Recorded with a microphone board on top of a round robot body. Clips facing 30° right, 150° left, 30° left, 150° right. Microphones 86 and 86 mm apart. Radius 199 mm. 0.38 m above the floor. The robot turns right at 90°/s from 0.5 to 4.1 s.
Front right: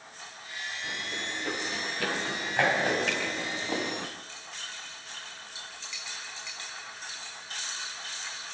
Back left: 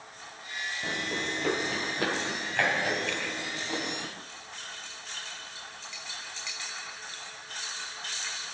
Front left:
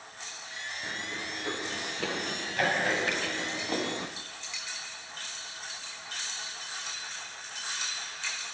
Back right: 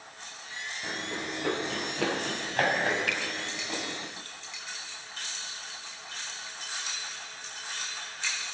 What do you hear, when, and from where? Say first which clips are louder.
0.8 s running footsteps: back left 5 dB, back right 4 dB; 125° left, 4 m; by 4.1 s 15° left, 7 m
3.1 s a finger snap: front right 2 dB, front left 1 dB; 35° right, 8 m; by 3.2 s 15° right, 8 m